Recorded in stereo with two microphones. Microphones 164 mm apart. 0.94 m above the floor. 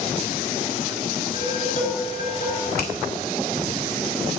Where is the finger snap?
85° left, 3 m.